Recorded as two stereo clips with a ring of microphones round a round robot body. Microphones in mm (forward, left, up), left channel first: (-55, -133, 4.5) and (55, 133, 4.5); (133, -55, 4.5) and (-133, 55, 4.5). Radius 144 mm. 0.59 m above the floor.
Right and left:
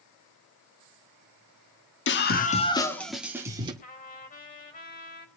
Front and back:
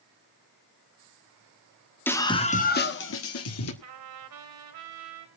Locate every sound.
2.1 s a scream: 105° right, 1.5 m; by 3.7 s 5° right, 2.0 m
3.8 s a trumpet: 175° right, 3.5 m